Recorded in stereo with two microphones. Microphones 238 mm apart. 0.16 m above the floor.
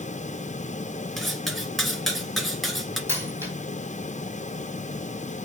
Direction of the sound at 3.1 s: 10° right (ahead or behind).